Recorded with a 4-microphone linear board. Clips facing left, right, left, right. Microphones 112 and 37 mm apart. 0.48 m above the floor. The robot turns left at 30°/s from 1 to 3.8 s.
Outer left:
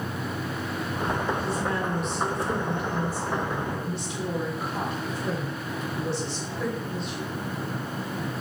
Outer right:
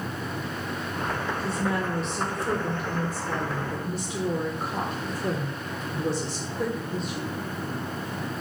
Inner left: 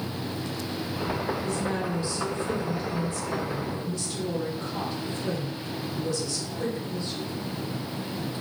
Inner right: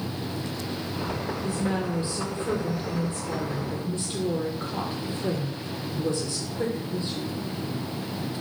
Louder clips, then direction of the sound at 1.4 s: Even, inner right 1 dB; 35° right.